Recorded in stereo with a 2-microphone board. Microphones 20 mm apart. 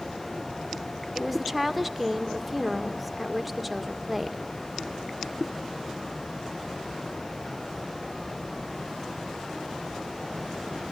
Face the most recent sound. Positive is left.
turn(degrees=0)  # may be behind; listen again after turning